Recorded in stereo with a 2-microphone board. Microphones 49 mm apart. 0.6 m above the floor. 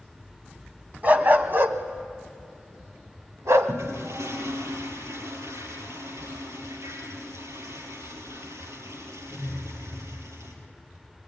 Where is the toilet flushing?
80° right, 4.5 m.